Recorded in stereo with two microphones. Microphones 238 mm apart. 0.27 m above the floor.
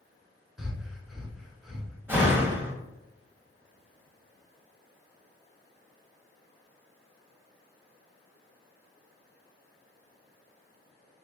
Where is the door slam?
10° right (ahead or behind), 0.9 m.